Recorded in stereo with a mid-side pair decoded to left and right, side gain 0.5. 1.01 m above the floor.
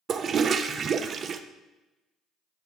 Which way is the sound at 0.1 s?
50° right.